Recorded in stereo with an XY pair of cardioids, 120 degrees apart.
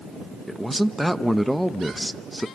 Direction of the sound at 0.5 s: 5° right.